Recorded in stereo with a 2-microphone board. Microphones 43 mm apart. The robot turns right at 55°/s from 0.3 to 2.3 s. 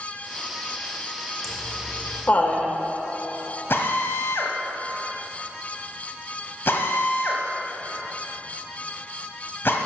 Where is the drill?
60° left (ahead or behind), 1.3 m.